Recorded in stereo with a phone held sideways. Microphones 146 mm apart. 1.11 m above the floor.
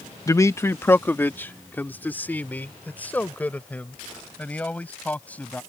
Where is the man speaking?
25° left (ahead or behind); by 5.6 s 10° left (ahead or behind).